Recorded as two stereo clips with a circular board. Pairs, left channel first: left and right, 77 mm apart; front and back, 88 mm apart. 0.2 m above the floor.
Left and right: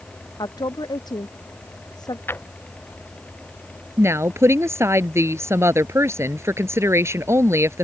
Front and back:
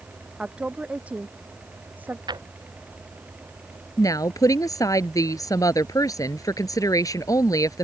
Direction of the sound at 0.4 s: 105° left.